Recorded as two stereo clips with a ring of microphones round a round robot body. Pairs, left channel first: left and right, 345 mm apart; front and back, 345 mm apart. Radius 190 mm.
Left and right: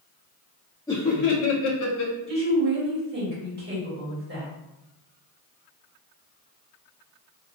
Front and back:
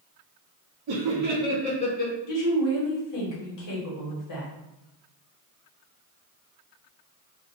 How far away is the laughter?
About 0.6 m.